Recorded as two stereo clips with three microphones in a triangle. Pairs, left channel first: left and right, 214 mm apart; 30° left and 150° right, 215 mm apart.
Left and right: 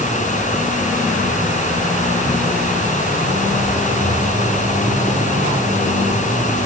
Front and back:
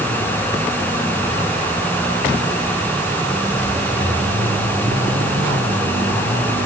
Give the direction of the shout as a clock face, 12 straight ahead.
I don't hear a shout.